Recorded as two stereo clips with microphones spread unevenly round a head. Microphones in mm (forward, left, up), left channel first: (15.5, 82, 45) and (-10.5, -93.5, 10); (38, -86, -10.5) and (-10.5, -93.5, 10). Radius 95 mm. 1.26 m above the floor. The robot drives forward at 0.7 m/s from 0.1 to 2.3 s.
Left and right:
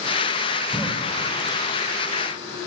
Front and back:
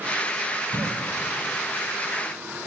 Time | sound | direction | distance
0.7 | a cough | 175° left | 5 m